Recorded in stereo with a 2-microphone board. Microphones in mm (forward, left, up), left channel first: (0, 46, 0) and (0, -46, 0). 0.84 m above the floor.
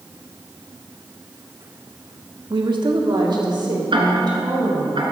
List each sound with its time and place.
2.5 s a woman speaking: 55° right (ahead or behind), 1.3 m
3.9 s ticking: 65° right (ahead or behind), 1.9 m